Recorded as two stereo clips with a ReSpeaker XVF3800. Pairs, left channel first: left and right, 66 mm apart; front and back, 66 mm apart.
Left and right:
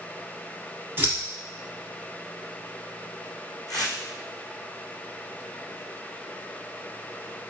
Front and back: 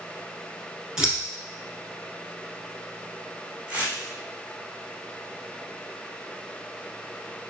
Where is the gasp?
No gasp in this recording.